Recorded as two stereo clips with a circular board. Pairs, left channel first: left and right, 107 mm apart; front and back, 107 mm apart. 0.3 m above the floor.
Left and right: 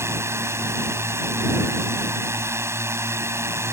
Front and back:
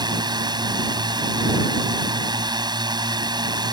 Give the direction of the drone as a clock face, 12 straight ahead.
5 o'clock.